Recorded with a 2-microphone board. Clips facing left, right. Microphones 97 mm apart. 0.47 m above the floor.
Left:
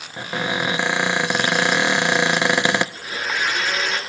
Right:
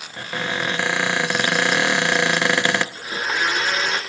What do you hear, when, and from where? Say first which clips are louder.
0.2 s a cupboard door: left 2 dB; 10° left (ahead or behind), 0.6 m
3.0 s a blender: right 1 dB; 35° right (ahead or behind), 6 m